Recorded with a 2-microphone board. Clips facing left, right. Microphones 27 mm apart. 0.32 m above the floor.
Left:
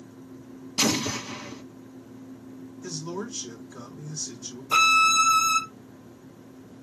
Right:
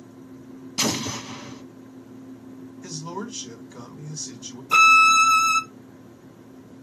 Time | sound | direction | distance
0.8 | an explosion | 5° right (ahead or behind) | 1.1 m
2.8 | a man speaking | 60° right (ahead or behind) | 3 m
4.7 | a violin | 10° right (ahead or behind) | 0.7 m